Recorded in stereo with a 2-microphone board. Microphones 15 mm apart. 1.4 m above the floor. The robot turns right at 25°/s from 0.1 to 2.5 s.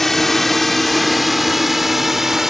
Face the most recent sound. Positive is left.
turn(degrees=-35)  # may be behind; listen again after turning